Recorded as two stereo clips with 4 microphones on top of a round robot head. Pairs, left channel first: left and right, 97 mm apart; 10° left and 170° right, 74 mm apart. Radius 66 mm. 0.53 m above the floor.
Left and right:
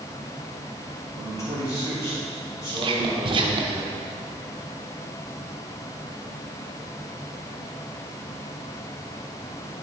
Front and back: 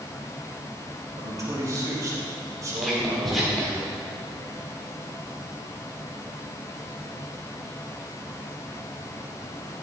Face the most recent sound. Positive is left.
turn(degrees=-80)